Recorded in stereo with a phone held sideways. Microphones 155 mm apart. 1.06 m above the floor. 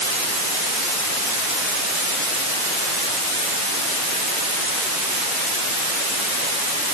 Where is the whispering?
I don't hear whispering.